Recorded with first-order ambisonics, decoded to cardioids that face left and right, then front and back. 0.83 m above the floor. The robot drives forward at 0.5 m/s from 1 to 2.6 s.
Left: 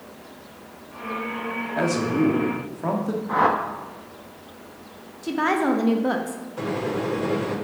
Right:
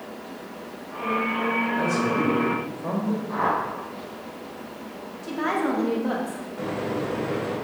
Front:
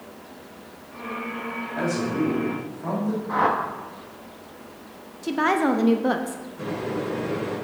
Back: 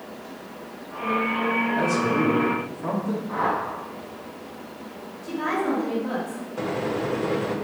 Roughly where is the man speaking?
Left.